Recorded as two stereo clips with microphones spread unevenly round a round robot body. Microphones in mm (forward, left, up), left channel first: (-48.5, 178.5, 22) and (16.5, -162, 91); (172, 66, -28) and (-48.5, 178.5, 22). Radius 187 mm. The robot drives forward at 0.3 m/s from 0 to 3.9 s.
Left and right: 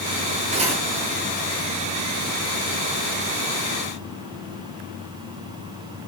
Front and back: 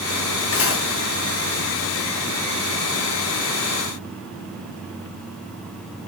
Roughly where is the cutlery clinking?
Ahead.